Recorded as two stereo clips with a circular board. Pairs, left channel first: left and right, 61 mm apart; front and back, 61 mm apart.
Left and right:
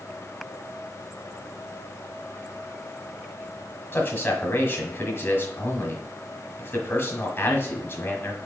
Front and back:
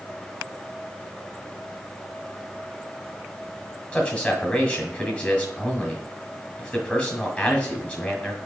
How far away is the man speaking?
About 1.6 m.